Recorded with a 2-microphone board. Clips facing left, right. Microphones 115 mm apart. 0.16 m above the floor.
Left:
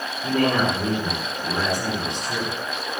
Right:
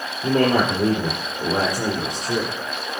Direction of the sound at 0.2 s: 40° right (ahead or behind).